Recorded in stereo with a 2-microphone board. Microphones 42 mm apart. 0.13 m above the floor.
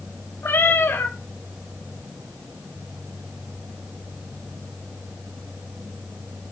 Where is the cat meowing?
55° left (ahead or behind), 3.5 m.